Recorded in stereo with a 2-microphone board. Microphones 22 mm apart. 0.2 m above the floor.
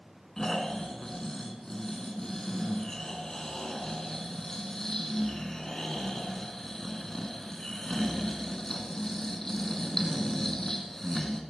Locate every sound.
0.4 s snoring: 20° left (ahead or behind), 1.5 m